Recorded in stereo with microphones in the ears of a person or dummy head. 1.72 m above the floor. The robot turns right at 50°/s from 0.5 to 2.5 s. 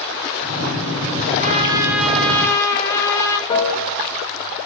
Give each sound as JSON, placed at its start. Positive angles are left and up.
{"t": 1.4, "sound": "a trumpet", "azimuth_deg": -35, "distance_m": 0.8}
{"t": 3.5, "sound": "a piano", "side_deg": 25, "distance_m": 1.0}